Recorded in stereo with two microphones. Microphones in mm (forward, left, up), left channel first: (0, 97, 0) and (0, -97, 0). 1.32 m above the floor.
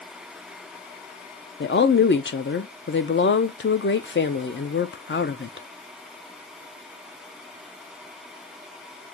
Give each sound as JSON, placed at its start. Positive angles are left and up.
{"t": 1.6, "sound": "a woman speaking", "side_deg": 70, "distance_m": 0.6}